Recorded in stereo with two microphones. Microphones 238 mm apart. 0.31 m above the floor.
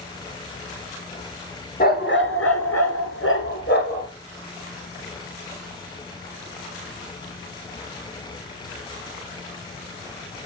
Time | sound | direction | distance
1.8 | a dog barking | 40° left (ahead or behind) | 1.7 m